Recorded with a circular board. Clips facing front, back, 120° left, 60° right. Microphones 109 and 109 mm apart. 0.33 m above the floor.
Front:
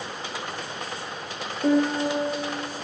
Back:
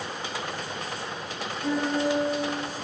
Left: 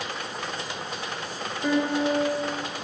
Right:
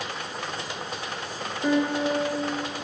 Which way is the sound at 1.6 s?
20° left.